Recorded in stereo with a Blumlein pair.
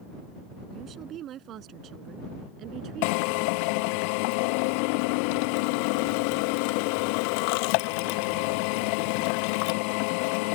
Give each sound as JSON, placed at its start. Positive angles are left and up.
{"t": 0.7, "sound": "a woman speaking", "azimuth_deg": -30}
{"t": 3.0, "sound": "a drill", "azimuth_deg": 45}